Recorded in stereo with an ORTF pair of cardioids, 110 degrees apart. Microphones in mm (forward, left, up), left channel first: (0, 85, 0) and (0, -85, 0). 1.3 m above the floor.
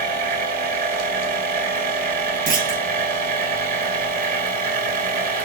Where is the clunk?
60° right, 1.5 m.